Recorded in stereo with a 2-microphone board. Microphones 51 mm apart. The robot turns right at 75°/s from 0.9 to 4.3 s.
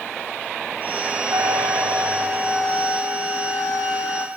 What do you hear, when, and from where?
1.3 s a trumpet: 90° right, 2.5 m; by 4.3 s 135° left, 2.5 m